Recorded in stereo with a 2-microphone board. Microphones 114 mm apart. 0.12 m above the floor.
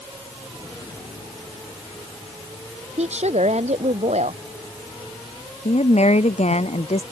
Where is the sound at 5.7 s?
75° left (ahead or behind).